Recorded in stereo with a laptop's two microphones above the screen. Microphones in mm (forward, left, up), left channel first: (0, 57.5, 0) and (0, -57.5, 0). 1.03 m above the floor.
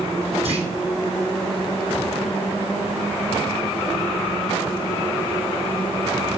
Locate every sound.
0.5 s a clunk: 65° right (ahead or behind), 3.5 m